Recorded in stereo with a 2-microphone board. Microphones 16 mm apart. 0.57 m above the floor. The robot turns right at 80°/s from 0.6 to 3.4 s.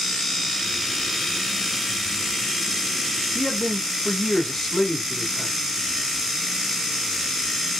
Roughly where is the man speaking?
Centre.